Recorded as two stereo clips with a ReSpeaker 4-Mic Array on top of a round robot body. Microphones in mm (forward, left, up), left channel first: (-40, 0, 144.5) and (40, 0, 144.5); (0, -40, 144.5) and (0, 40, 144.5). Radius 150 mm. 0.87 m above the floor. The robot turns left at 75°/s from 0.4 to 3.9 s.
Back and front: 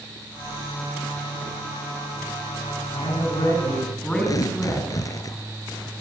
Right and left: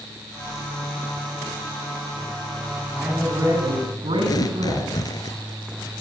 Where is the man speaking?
175° left, 7.5 m; by 4.9 s 100° left, 7.5 m.